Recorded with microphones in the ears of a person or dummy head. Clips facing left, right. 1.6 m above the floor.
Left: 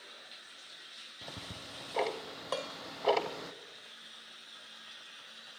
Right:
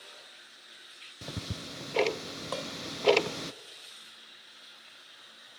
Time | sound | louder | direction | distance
1.2 | ticking | right 7 dB | 35° right (ahead or behind) | 0.6 m
2.5 | dishes clattering | even | centre (ahead or behind) | 0.7 m